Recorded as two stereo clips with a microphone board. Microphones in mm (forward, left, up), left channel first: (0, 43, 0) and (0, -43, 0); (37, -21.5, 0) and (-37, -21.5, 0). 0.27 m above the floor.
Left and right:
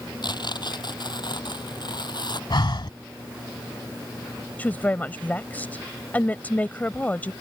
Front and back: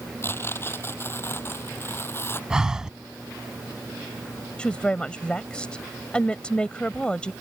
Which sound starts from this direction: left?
Breathing, at 2.5 s.